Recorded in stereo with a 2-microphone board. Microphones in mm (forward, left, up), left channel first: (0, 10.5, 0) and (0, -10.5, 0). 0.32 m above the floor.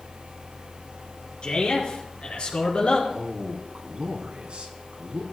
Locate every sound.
1.4 s a man speaking: 50° left (ahead or behind), 4 m; by 3.0 s 65° left (ahead or behind), 3.5 m
3.1 s a man speaking: 70° right (ahead or behind), 2.5 m